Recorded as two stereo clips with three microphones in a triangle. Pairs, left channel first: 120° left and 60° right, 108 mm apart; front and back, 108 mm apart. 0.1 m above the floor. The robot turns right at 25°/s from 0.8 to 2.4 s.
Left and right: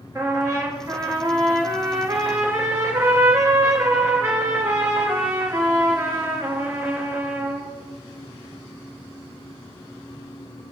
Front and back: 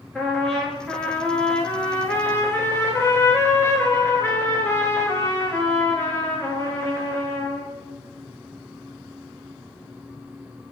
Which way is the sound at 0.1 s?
80° right.